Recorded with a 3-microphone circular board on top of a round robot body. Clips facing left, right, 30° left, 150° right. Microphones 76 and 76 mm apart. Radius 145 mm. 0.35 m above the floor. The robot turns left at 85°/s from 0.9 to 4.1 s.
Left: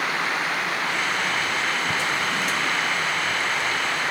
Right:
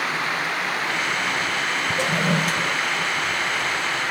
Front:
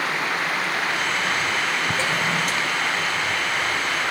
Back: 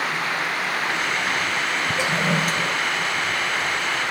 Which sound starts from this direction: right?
A toilet flushing, at 2.0 s.